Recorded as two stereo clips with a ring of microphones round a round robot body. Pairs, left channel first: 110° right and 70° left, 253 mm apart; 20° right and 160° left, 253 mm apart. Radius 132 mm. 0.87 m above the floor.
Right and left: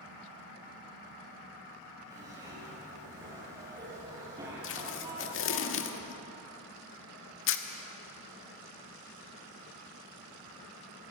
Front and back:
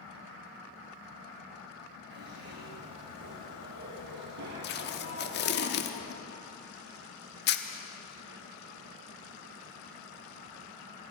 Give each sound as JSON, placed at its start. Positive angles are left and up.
{"t": 2.1, "sound": "a zipper", "azimuth_deg": 140, "distance_m": 9.5}
{"t": 4.6, "sound": "tape being pulled", "azimuth_deg": -70, "distance_m": 1.4}